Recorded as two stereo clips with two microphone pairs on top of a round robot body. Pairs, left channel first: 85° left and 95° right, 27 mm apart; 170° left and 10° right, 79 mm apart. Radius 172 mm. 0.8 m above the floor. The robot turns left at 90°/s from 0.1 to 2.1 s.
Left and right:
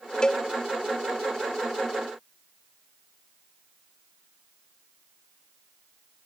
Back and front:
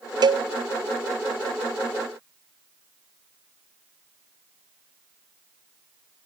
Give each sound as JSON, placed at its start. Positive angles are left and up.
{"t": 0.2, "sound": "a cowbell", "azimuth_deg": 20, "distance_m": 0.6}